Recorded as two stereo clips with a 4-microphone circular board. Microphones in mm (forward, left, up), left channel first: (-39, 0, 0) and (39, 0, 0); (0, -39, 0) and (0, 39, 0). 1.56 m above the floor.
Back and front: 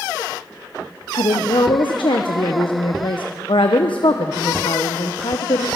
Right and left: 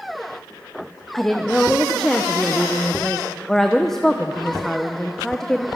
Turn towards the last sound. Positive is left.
turn(degrees=-175)